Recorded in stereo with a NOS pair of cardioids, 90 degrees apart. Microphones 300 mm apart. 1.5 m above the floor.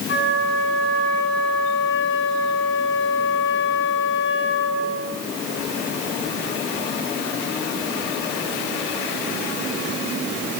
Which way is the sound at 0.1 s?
40° left.